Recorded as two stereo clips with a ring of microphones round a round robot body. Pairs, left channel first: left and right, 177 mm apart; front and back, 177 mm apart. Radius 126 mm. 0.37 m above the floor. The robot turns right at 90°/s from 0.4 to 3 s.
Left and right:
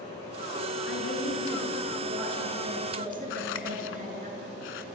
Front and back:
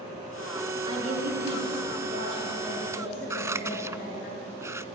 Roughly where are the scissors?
Left.